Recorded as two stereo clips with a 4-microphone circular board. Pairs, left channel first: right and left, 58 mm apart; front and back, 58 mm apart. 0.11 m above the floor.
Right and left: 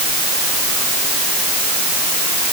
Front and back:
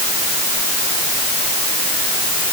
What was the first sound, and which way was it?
Only background noise.